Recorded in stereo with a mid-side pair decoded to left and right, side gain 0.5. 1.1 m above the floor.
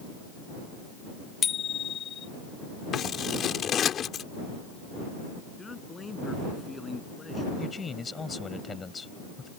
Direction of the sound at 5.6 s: 25° left.